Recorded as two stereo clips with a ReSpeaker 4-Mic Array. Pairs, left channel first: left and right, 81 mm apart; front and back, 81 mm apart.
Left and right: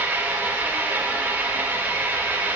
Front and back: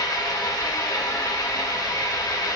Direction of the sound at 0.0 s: 25° right.